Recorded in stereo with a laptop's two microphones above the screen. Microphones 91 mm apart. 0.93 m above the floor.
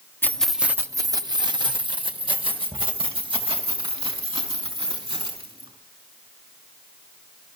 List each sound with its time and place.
0.2 s keys jangling: 25° left (ahead or behind), 0.8 m; by 5.7 s 75° right (ahead or behind), 6 m